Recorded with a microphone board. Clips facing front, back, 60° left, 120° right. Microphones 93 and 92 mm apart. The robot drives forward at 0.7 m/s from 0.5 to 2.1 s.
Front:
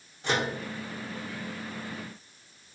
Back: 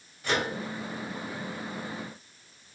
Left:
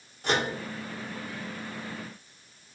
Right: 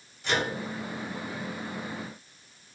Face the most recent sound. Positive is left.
turn(degrees=130)